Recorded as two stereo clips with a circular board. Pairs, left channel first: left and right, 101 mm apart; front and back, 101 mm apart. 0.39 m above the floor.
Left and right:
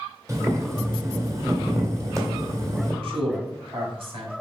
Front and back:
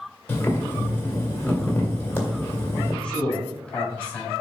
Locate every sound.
0.3 s boiling: 55° right, 1.8 m
3.0 s a man speaking: 80° right, 2.5 m